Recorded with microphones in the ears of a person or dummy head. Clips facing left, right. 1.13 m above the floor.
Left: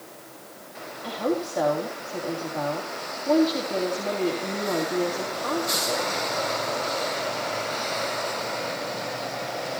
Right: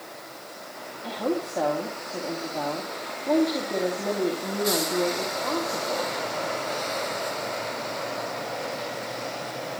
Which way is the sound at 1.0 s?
Centre (ahead or behind).